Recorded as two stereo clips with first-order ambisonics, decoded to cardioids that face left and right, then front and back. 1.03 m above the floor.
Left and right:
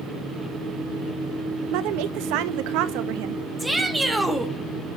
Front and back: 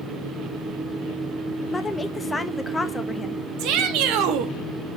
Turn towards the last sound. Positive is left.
turn(degrees=-175)